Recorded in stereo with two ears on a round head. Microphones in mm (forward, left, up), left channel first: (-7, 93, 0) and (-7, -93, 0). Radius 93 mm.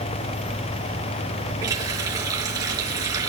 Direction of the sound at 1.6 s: 20° right (ahead or behind).